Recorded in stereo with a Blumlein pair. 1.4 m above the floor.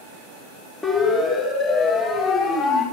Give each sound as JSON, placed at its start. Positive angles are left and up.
{"t": 0.8, "sound": "a siren", "azimuth_deg": 10, "distance_m": 2.5}